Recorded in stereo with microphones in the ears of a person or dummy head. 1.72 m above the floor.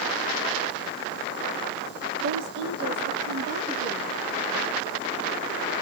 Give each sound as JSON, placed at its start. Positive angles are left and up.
{"t": 2.2, "sound": "a woman speaking", "side_deg": -80, "distance_m": 0.7}